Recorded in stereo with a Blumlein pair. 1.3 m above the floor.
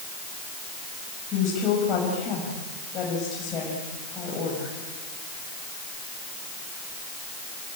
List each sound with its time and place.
1.3 s a woman speaking: 30° left, 6.5 m